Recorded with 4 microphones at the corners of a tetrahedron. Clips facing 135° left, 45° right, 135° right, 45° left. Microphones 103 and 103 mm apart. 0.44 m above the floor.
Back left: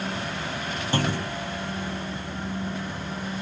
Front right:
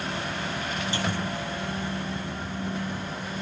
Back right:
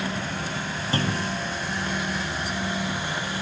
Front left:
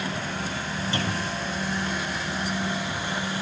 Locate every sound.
0.9 s a clunk: 175° left, 2 m